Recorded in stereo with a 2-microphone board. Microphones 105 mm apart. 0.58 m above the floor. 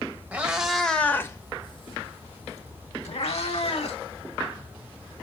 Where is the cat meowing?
10° right (ahead or behind), 1.4 m; by 4.0 s 75° left (ahead or behind), 2.5 m.